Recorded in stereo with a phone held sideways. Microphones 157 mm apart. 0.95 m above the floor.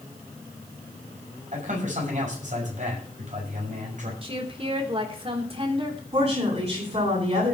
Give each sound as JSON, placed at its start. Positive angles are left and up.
{"t": 1.5, "sound": "a man speaking", "side_deg": -55, "distance_m": 7.0}
{"t": 4.2, "sound": "a woman speaking", "side_deg": -35, "distance_m": 3.0}
{"t": 6.1, "sound": "a woman speaking", "side_deg": -40, "distance_m": 9.5}